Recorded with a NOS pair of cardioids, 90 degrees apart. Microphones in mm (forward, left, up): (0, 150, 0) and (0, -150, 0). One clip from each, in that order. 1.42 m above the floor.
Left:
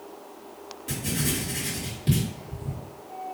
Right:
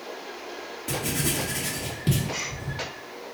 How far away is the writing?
About 1.7 m.